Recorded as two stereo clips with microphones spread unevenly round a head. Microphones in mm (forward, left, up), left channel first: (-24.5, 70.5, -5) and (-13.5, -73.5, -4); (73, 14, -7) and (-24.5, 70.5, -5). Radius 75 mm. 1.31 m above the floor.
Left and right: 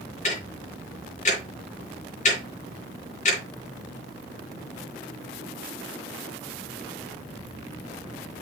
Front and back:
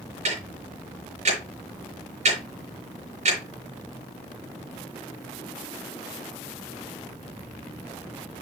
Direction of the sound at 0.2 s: 135° left.